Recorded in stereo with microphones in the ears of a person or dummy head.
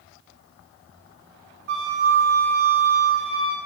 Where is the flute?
60° right (ahead or behind), 1.4 m.